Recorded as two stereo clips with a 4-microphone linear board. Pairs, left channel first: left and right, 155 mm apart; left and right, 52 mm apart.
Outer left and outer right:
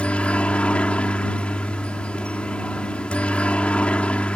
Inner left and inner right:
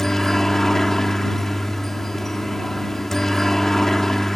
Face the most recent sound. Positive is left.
turn(degrees=10)  # may be behind; listen again after turning